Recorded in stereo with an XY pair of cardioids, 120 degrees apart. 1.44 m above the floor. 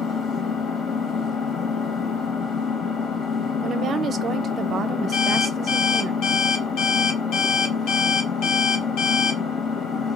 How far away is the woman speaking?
About 0.6 m.